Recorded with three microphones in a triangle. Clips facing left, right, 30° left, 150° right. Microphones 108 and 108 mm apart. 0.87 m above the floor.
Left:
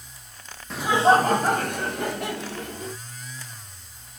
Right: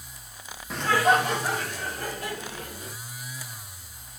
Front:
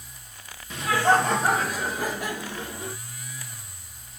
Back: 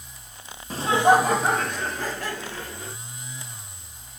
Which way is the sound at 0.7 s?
175° right.